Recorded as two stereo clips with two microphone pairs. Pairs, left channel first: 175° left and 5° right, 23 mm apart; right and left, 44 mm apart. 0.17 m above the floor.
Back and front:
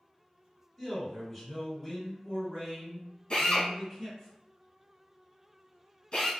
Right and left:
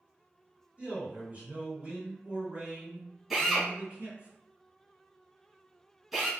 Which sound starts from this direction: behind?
A drill, at 3.3 s.